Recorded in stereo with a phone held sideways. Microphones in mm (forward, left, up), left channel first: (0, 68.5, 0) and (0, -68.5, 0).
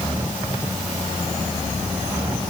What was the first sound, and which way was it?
Only background noise.